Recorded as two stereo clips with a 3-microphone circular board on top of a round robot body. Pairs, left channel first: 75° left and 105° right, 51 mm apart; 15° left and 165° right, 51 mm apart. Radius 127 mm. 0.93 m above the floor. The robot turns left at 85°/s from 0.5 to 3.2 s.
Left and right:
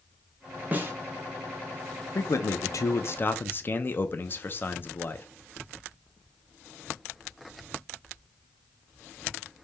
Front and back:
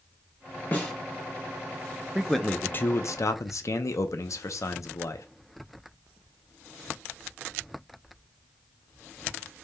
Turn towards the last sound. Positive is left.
turn(degrees=30)